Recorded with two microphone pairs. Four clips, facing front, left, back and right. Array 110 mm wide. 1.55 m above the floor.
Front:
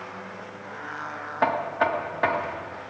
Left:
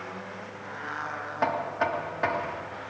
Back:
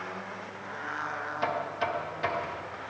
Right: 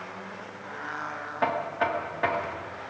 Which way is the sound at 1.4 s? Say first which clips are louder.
Even, front 8 dB; 10° left.